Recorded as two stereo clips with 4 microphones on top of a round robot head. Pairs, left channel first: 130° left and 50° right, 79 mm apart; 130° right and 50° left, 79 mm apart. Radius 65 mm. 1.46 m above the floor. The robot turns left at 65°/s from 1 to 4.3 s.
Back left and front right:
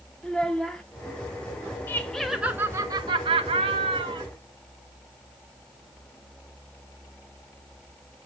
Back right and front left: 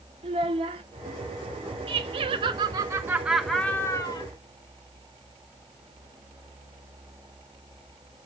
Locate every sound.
0.2 s a child speaking: 45° left, 0.9 m
1.9 s laughter: 65° left, 1.2 m; by 4.2 s 90° right, 1.2 m